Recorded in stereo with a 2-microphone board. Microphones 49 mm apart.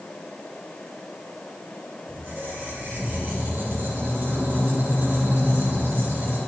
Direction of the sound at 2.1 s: 50° right (ahead or behind).